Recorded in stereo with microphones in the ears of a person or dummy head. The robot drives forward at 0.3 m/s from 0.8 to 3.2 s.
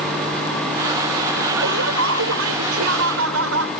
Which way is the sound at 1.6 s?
70° right (ahead or behind).